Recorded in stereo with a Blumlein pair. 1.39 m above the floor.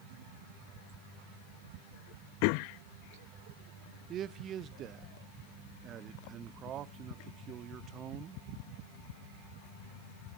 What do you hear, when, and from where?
4.1 s a man speaking: 30° right, 0.6 m